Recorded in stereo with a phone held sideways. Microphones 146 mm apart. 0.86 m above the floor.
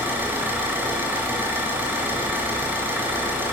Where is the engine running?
15° right (ahead or behind), 1.4 m.